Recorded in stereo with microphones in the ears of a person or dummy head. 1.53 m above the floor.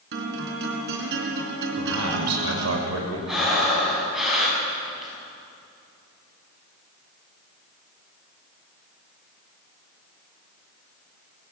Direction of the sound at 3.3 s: 5° right (ahead or behind).